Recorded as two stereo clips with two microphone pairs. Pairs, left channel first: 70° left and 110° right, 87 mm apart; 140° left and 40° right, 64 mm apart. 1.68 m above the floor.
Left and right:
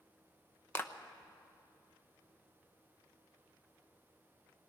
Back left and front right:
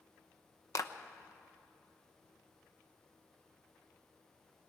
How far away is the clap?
About 0.9 m.